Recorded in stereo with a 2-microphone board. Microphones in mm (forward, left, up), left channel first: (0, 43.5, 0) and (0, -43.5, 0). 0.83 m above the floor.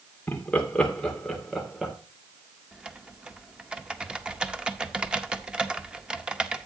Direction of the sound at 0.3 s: 20° left (ahead or behind).